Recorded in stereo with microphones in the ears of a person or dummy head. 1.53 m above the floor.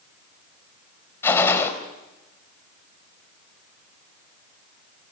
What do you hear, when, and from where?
1.2 s a gunshot: 15° left (ahead or behind), 3.5 m